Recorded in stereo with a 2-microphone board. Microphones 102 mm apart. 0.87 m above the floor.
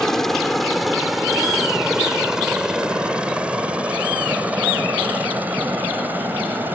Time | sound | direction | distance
0.0 | a helicopter | 5° left (ahead or behind) | ?